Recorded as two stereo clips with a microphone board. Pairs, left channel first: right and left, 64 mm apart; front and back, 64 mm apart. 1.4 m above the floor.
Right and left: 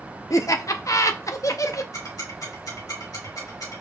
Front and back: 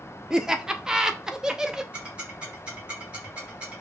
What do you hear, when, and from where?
0.3 s laughter: 100° right, 0.7 m
1.9 s ticking: 110° right, 2 m